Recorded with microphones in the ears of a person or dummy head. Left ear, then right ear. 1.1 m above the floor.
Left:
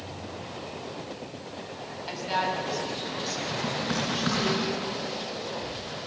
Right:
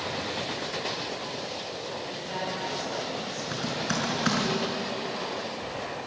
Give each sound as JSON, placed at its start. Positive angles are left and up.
{"t": 2.1, "sound": "a woman speaking", "side_deg": 60, "distance_m": 6.5}
{"t": 3.5, "sound": "typing on a keyboard", "side_deg": -30, "distance_m": 5.0}